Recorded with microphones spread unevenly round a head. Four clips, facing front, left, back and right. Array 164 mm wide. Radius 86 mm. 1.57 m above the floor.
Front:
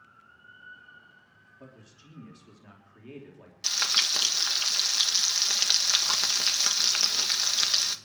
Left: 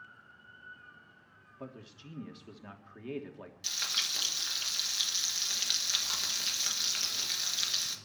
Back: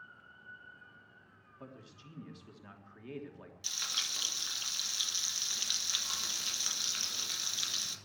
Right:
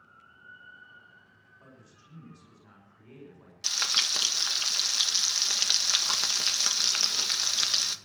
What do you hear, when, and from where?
1.6 s a man speaking: 85° left, 3 m
3.6 s frying: 30° right, 1.4 m